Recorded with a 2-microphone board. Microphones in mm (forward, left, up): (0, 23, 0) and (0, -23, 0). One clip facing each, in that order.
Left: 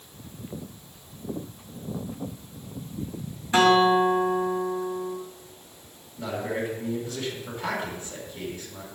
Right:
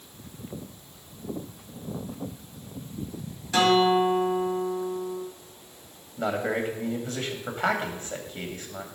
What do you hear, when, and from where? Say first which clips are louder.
3.5 s a guitar: left 2 dB; 25° left (ahead or behind), 2.5 m
6.2 s a man speaking: right 3 dB; 50° right (ahead or behind), 2 m